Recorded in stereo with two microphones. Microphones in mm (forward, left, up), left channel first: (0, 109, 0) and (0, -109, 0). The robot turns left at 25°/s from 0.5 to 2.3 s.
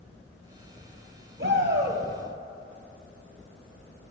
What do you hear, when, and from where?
1.4 s a shout: 60° right (ahead or behind), 3 m; by 2.0 s 50° right (ahead or behind), 3 m